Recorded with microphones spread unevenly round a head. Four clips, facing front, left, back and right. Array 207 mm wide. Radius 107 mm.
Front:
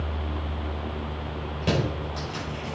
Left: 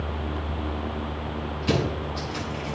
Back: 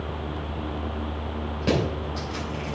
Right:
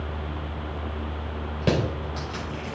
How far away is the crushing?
About 4.5 m.